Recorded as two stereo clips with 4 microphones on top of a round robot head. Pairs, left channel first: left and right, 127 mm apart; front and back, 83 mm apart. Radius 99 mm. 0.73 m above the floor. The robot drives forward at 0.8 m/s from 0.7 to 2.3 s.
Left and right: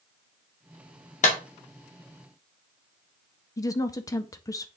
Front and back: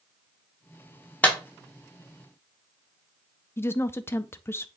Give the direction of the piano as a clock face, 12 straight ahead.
No piano in this recording.